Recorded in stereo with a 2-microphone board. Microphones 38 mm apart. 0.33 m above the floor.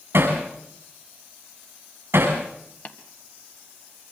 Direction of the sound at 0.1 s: 65° right (ahead or behind).